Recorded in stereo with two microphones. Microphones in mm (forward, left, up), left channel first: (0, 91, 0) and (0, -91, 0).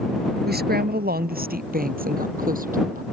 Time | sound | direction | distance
0.5 | a woman speaking | 60° right (ahead or behind) | ?